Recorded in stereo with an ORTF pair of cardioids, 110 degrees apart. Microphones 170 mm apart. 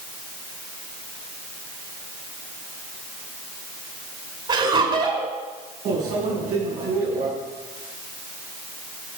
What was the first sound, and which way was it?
Laughter, 30° right.